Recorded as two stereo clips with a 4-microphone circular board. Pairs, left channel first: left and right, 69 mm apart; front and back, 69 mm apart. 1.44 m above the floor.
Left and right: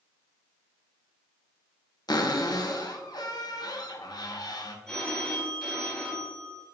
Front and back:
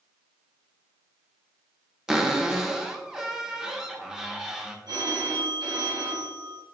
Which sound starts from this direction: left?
A cupboard door, at 2.1 s.